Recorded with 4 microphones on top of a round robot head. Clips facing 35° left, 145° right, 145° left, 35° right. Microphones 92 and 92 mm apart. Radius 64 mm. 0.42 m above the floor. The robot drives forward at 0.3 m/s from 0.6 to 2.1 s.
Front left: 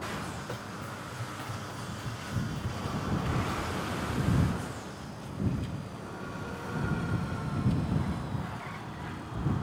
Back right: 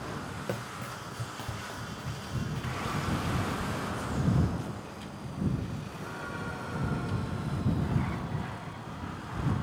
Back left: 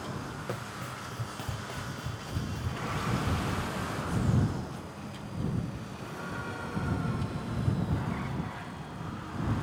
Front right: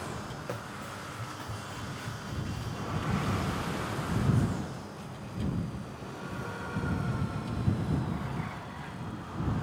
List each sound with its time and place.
0.5 s running footsteps: 125° right, 0.5 m; by 3.7 s 115° left, 1.5 m